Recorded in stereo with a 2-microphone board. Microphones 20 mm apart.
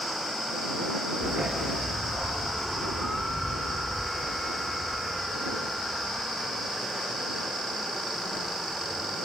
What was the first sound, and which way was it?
A dog barking, 40° right (ahead or behind).